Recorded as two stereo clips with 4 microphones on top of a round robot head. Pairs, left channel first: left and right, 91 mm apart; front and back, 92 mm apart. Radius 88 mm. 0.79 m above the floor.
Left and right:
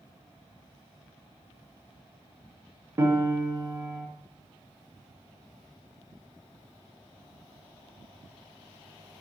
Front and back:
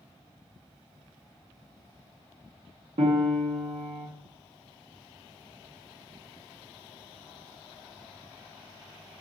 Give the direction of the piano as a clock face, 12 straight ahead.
5 o'clock.